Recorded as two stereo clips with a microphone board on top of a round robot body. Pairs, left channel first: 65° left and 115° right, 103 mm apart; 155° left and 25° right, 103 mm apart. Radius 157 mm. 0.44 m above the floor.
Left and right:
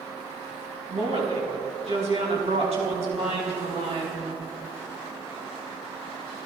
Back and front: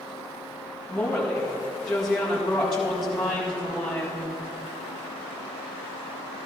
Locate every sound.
0.9 s a woman speaking: 115° right, 5 m